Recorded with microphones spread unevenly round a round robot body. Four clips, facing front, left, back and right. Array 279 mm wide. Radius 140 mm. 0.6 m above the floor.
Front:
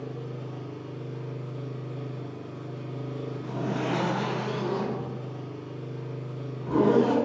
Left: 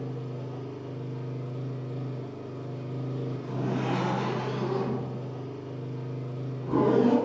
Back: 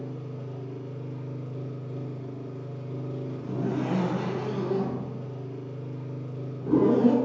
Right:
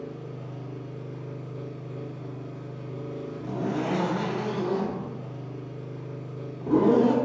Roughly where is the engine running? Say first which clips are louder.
Left 1 dB, front 1 dB; left.